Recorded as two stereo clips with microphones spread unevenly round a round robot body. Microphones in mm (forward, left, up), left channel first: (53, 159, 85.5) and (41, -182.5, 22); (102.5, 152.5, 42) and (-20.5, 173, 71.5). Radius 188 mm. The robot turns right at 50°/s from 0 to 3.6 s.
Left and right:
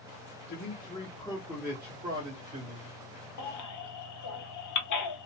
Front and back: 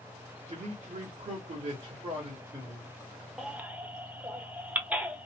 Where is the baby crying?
65° left, 1.0 m; by 5.3 s 75° left, 1.0 m.